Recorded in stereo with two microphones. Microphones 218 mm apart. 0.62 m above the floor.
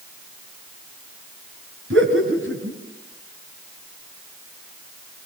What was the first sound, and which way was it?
Laughter, 75° right (ahead or behind).